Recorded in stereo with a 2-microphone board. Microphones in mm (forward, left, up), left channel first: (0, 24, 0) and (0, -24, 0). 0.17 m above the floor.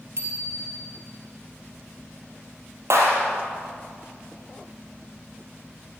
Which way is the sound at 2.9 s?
70° right (ahead or behind).